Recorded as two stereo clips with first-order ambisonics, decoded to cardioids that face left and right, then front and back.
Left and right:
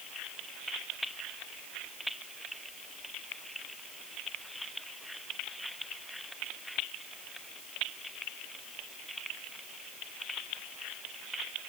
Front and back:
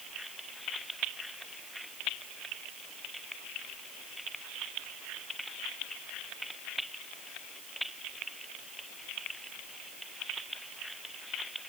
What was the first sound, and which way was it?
Only background noise.